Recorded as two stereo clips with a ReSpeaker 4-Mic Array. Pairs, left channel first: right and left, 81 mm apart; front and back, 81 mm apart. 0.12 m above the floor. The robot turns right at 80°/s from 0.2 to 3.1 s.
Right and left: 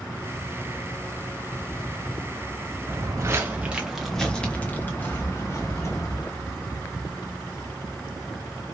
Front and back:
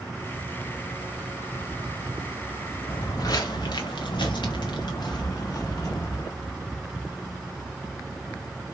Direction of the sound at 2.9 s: 30° left.